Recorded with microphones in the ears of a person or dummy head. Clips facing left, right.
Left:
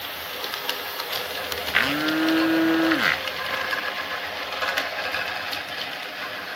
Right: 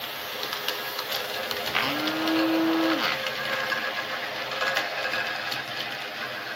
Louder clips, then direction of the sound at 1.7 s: Left 5 dB; 25° left (ahead or behind).